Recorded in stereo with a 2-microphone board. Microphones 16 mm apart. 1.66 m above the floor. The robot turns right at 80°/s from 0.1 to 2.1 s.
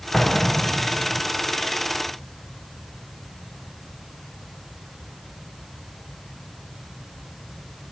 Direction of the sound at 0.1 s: 45° left.